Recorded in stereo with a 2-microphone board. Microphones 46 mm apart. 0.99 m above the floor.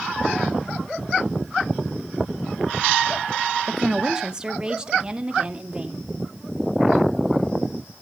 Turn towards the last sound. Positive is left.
turn(degrees=-20)  # may be behind; listen again after turning